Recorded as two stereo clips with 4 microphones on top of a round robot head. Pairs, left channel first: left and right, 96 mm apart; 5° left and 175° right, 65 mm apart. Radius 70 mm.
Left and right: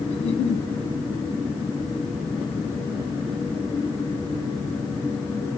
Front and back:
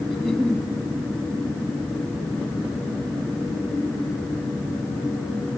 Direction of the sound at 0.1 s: 90° left.